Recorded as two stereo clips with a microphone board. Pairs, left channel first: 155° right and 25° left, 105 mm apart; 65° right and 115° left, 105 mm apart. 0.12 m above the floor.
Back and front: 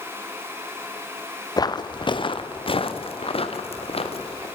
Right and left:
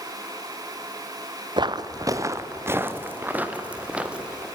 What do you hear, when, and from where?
1.6 s footsteps: 155° left, 1.2 m; by 4.5 s 165° right, 3 m